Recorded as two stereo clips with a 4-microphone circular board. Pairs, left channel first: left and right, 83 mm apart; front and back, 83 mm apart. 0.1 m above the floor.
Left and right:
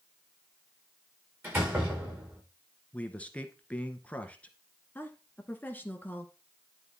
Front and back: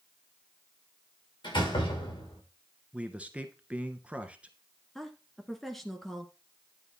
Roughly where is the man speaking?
Behind left.